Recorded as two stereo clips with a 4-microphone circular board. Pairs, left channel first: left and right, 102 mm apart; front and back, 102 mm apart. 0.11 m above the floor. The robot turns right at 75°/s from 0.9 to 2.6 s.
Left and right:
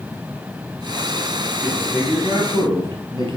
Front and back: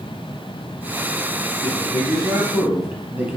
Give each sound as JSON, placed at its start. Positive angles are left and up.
{"t": 1.6, "sound": "a man speaking", "azimuth_deg": 175, "distance_m": 2.5}